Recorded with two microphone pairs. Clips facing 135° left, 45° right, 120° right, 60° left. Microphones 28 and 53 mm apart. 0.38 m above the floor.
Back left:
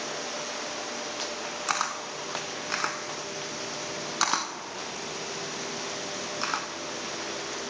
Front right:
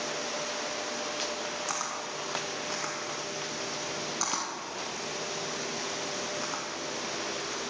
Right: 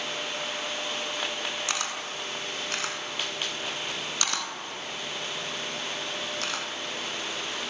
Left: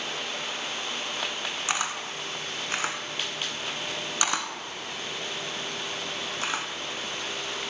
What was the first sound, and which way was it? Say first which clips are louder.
A camera shutter: back left 4 dB, left 2 dB; 130° left.